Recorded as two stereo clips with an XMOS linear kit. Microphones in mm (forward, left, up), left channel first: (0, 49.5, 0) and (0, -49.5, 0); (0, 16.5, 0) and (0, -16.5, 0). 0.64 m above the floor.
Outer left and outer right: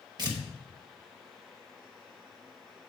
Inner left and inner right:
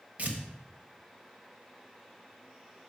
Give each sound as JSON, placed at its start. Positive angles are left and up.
{"t": 0.2, "sound": "tearing paper", "side_deg": -45, "distance_m": 1.1}